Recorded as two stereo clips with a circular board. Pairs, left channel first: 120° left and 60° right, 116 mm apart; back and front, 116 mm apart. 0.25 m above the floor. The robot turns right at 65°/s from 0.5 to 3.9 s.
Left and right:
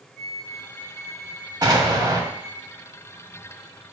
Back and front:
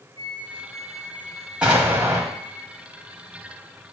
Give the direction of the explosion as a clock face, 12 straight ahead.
3 o'clock.